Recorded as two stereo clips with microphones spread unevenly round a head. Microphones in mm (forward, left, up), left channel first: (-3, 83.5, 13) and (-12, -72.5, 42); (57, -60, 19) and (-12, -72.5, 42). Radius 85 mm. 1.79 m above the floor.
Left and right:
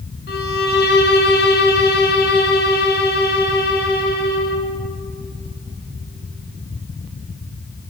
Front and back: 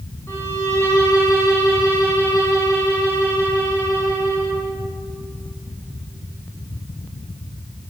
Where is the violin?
95° left, 0.6 m.